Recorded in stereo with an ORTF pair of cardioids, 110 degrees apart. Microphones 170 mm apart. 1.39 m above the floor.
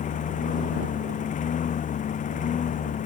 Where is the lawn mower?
50° left.